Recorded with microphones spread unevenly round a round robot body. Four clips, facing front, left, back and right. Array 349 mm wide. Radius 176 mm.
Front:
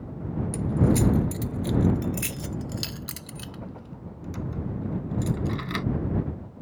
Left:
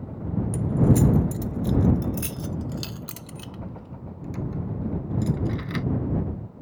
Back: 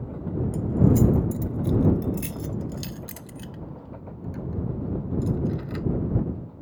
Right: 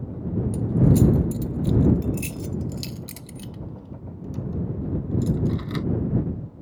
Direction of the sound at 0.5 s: 70° left.